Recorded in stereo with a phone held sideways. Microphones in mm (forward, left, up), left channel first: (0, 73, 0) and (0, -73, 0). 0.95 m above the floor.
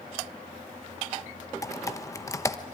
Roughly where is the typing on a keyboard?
Left.